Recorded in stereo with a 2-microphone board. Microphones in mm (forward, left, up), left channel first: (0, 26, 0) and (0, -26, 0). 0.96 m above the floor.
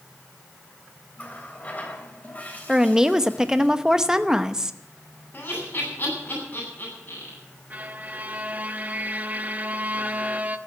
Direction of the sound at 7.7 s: 30° right (ahead or behind).